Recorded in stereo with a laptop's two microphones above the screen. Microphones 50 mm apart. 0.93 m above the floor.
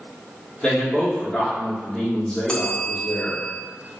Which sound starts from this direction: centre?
A man speaking, at 0.6 s.